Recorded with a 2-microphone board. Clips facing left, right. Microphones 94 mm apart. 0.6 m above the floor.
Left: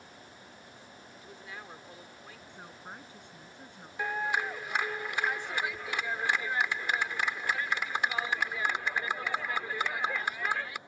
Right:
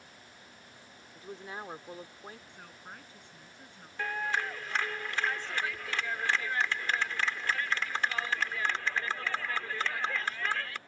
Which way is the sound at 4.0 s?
15° left (ahead or behind).